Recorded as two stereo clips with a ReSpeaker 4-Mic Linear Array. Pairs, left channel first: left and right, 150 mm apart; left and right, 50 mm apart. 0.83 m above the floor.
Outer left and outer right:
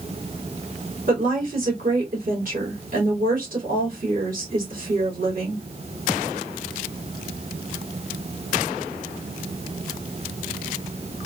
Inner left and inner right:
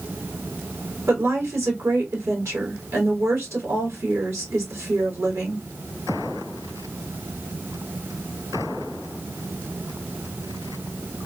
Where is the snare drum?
No snare drum in this recording.